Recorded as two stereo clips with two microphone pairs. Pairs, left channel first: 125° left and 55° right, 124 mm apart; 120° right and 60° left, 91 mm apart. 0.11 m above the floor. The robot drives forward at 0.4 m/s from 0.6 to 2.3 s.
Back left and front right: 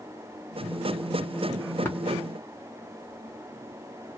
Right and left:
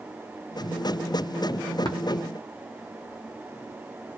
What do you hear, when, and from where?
1.9 s tapping: 160° right, 1.0 m